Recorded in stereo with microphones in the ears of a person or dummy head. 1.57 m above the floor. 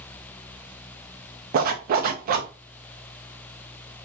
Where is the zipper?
50° right (ahead or behind), 0.6 m.